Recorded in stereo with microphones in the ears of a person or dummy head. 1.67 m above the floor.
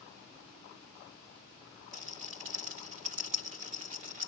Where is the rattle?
40° right (ahead or behind), 1.2 m.